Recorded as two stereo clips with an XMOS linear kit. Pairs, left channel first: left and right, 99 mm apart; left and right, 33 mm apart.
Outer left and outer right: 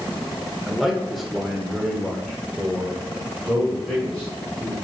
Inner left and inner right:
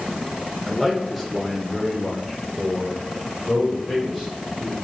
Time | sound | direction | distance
0.7 | a man speaking | centre (ahead or behind) | 1.4 m